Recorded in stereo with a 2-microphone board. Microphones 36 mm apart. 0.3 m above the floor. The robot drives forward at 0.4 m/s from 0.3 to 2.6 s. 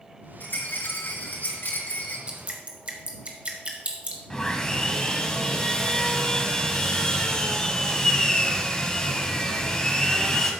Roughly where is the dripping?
Right.